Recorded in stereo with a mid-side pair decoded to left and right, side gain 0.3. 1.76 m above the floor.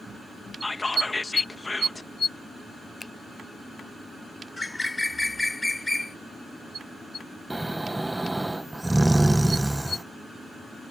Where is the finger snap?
25° left.